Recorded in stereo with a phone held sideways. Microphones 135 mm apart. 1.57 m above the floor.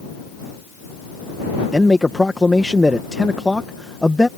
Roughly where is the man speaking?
Centre.